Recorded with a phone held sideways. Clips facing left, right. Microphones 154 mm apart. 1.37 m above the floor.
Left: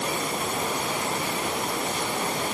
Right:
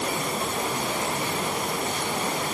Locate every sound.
Only background noise.